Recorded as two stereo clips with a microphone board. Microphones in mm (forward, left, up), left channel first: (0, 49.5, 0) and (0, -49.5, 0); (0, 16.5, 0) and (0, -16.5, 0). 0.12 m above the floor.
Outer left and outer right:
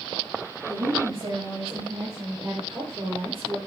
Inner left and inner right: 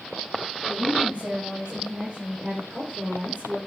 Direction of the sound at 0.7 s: 35° right (ahead or behind).